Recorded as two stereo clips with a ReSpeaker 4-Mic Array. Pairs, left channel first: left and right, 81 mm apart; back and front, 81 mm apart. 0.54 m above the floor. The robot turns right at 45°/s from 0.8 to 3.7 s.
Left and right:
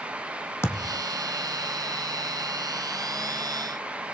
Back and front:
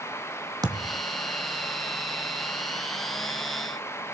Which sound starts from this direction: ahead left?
A thud, at 0.6 s.